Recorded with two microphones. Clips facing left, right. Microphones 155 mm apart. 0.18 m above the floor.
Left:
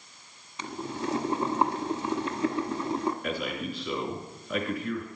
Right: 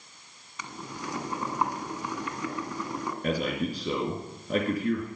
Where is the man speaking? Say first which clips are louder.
Right 4 dB; 40° right (ahead or behind), 3 m.